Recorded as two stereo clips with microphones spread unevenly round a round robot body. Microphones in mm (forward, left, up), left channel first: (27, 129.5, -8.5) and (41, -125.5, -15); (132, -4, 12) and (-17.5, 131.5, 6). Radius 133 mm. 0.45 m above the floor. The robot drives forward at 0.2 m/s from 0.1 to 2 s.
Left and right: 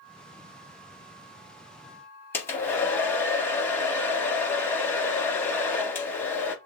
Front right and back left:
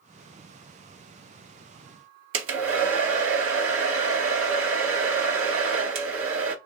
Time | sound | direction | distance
2.3 | a hair dryer | 175° left | 0.5 m